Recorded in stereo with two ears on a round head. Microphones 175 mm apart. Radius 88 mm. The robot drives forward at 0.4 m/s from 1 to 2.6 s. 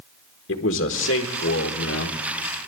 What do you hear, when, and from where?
0.5 s a man speaking: 60° left (ahead or behind), 1.7 m; by 2.2 s 70° left (ahead or behind), 1.6 m